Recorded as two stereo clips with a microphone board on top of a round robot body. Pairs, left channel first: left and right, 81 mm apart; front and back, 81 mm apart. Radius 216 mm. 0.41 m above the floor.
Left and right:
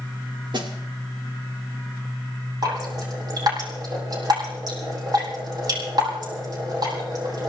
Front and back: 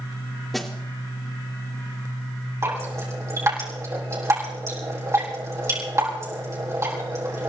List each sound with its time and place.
0.5 s a snare drum: 90° right, 3 m
2.6 s dripping: 125° right, 5.5 m